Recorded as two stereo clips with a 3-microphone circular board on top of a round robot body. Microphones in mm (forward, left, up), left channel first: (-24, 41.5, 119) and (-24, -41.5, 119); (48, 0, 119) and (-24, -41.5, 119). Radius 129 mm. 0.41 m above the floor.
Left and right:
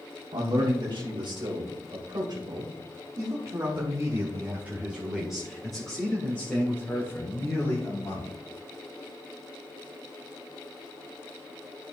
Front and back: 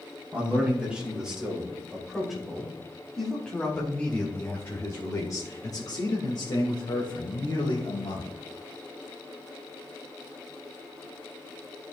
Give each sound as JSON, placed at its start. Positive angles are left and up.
{"t": 0.3, "sound": "a man speaking", "azimuth_deg": -80, "distance_m": 3.5}